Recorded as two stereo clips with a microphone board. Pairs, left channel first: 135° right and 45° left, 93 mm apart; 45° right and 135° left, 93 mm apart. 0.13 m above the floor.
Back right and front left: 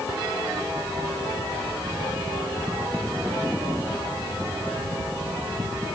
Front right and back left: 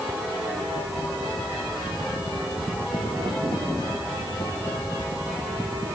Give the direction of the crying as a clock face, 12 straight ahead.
I don't hear crying.